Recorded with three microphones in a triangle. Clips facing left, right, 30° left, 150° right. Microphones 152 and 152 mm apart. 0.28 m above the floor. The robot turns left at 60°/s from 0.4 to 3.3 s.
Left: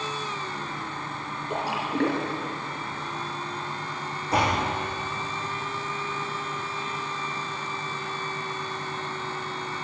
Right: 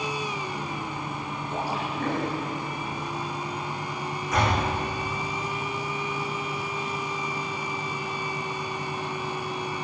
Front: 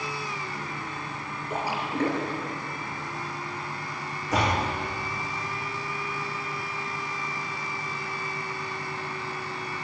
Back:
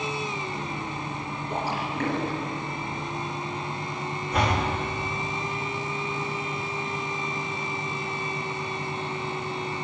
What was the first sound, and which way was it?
A splash, 115° left.